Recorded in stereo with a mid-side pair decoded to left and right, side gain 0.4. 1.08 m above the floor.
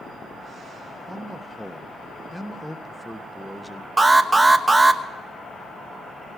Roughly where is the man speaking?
Ahead.